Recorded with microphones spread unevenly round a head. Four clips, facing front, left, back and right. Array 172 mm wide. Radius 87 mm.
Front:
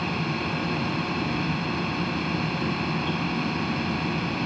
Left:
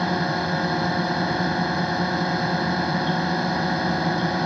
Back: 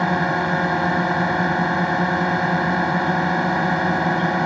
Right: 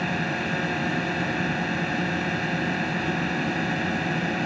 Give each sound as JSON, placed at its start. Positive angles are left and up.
{"t": 0.0, "sound": "a drone", "azimuth_deg": 165}